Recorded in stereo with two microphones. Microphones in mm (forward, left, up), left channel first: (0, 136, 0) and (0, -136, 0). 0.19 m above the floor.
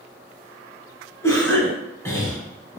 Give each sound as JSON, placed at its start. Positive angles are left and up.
{"t": 1.2, "sound": "a cough", "side_deg": 10, "distance_m": 1.0}